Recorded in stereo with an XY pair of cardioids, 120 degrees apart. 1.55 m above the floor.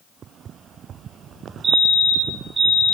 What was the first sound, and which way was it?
A fire alarm, 45° right.